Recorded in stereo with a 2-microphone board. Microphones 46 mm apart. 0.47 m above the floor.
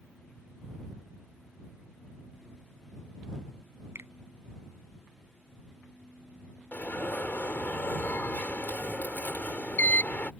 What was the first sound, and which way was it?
A finger snap, 75° right (ahead or behind).